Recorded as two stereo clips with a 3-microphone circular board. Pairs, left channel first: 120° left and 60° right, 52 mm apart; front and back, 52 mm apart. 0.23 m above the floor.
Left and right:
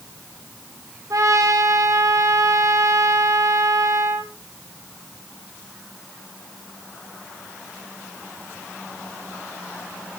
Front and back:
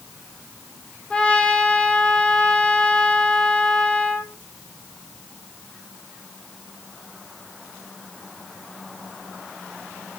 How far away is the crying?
No crying in this recording.